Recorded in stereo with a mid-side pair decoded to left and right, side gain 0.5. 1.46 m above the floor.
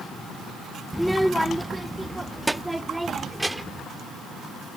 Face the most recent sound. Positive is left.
turn(degrees=-10)